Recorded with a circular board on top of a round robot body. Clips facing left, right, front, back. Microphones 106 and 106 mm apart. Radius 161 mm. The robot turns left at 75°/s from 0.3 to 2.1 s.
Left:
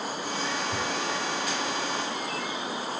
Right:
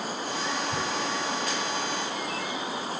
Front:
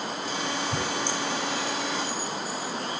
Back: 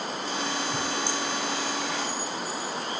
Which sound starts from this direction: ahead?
Tearing paper, at 0.7 s.